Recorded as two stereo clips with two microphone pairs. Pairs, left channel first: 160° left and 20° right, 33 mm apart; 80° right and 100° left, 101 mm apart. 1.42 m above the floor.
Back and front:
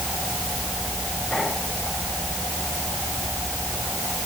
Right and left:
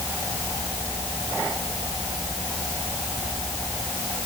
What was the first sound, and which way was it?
Only background noise.